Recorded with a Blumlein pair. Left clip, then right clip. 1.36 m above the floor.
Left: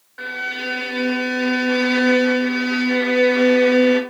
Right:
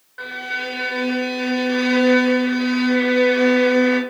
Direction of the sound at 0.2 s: 5° left.